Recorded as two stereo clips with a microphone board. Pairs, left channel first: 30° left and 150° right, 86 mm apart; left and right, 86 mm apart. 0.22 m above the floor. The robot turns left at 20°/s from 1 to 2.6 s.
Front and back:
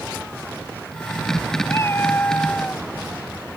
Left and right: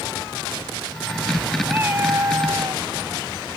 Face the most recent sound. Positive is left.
turn(degrees=-45)